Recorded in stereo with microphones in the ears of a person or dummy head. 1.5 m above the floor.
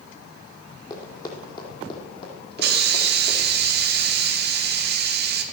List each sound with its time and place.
0.9 s running footsteps: 20° left (ahead or behind), 3.5 m; by 3.5 s 40° left (ahead or behind), 4.5 m
2.6 s a hiss: 60° right (ahead or behind), 1.1 m